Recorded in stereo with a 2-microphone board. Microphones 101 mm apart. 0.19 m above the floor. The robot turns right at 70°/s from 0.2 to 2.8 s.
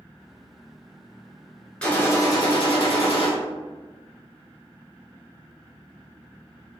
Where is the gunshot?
10° left, 1.0 m; by 3.3 s 80° left, 1.0 m.